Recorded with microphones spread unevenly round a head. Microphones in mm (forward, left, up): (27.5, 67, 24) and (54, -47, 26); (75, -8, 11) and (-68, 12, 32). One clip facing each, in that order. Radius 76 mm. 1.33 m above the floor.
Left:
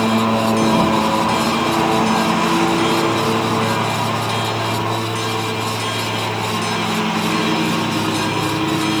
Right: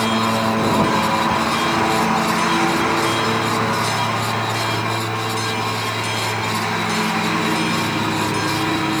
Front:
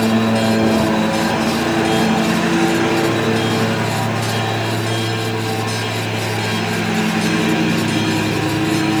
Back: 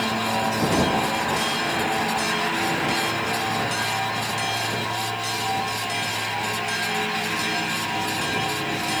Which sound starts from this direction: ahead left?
A lawn mower, at 0.0 s.